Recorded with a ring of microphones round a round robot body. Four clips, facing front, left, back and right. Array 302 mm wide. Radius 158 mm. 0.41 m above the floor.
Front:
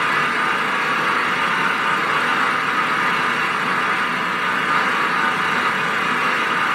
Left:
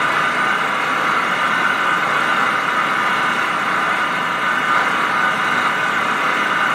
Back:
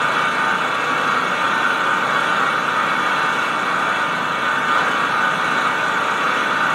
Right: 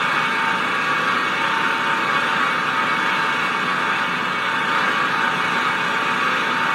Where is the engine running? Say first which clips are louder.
Left 3 dB, back 1 dB; 140° left, 2.5 m.